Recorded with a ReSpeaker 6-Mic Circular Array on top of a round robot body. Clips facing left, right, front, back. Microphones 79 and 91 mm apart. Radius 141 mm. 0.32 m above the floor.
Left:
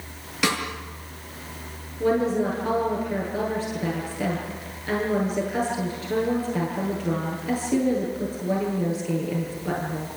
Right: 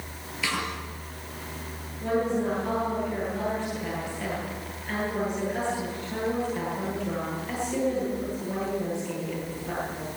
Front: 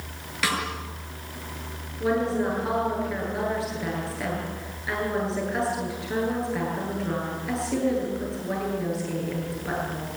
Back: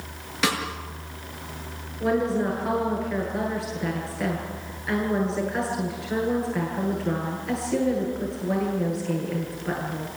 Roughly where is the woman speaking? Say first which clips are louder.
Left 4 dB, back 1 dB; left.